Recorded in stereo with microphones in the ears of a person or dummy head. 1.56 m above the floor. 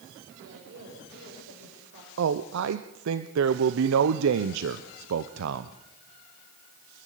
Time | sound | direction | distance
0.4 | a woman speaking | 70° right (ahead or behind) | 6 m
2.2 | a man speaking | 70° right (ahead or behind) | 0.8 m